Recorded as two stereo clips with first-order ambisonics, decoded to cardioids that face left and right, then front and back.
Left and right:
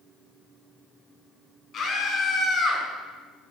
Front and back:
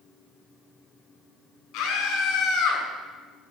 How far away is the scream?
About 4 m.